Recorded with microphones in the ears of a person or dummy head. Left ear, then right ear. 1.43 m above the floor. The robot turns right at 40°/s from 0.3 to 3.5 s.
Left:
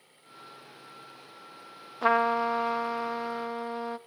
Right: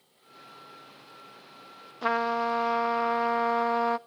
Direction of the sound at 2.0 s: 150° left.